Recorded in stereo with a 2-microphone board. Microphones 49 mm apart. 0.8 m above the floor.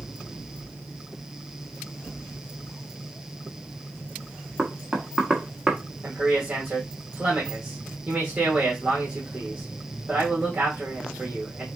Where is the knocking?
10° right (ahead or behind), 1.0 m.